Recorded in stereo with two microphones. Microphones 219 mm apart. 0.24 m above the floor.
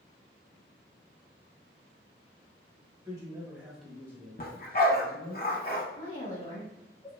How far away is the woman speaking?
About 2.0 m.